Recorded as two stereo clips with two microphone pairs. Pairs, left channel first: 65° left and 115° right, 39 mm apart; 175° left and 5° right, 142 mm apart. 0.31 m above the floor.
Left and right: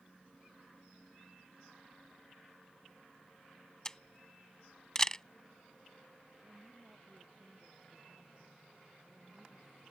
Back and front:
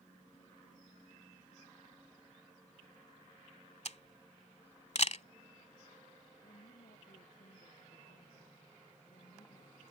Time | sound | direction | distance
3.9 | a camera shutter | 140° left | ?
6.4 | a woman speaking | 170° right | ?